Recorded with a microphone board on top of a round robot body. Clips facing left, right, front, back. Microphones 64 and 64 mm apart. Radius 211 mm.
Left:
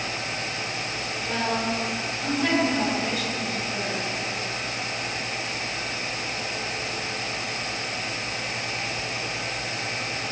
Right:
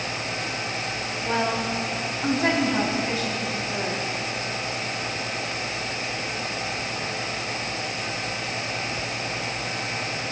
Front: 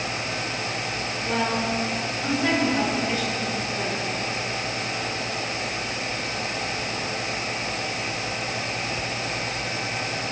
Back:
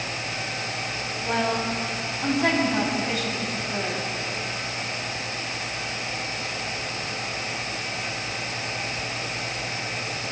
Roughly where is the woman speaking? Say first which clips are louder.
Right 2 dB, even; behind right.